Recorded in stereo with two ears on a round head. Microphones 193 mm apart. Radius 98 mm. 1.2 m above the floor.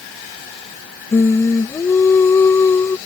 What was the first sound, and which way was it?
Singing, 10° left (ahead or behind).